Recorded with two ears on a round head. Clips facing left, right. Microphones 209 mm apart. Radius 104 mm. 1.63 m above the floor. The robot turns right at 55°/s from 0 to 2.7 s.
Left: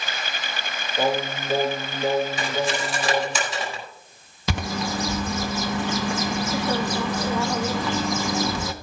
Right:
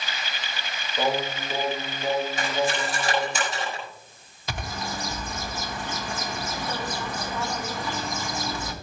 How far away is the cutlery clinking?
About 5.5 m.